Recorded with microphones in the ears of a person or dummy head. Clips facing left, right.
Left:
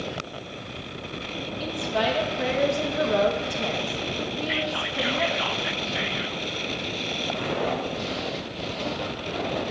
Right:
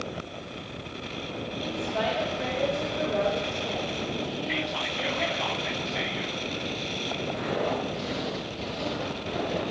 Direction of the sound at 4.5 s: 5° left (ahead or behind).